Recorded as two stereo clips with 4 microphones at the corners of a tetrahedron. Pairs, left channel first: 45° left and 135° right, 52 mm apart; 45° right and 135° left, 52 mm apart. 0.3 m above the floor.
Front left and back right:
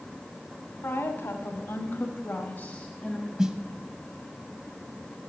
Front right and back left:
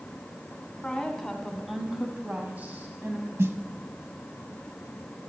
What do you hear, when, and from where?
0.8 s a woman speaking: 30° left, 2.0 m; by 3.3 s 115° left, 1.7 m
3.4 s a snare drum: 150° left, 0.9 m